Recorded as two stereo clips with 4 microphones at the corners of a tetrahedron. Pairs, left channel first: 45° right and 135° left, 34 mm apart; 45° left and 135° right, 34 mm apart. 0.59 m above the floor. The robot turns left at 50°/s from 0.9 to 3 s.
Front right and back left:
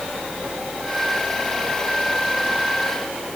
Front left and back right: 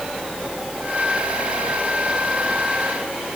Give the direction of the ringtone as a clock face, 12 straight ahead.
I don't hear a ringtone.